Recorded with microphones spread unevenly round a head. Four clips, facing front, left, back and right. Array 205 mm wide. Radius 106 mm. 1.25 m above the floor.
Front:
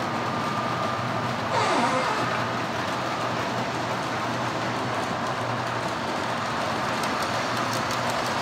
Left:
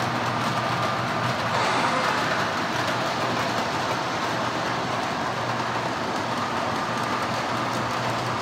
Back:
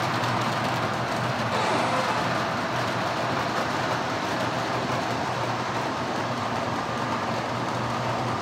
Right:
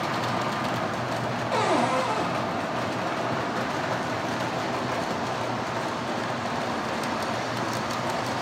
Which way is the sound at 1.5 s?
85° right.